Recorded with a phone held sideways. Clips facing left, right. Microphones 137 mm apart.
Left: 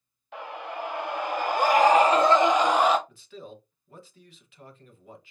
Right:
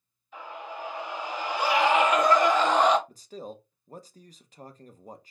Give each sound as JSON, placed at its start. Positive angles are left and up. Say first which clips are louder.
{"t": 0.3, "sound": "a scream", "louder": "left 3 dB", "side_deg": 75, "distance_m": 1.5}
{"t": 3.1, "sound": "a man speaking", "louder": "right 3 dB", "side_deg": -40, "distance_m": 0.7}